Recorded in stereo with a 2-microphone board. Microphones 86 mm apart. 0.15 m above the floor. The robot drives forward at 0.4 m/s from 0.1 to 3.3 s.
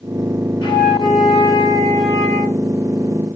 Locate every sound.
0.6 s a flute: 60° left (ahead or behind), 5 m; by 2.6 s 70° left (ahead or behind), 4.5 m